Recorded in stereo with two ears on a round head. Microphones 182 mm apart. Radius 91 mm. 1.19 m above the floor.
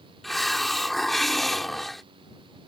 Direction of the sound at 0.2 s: Centre (ahead or behind).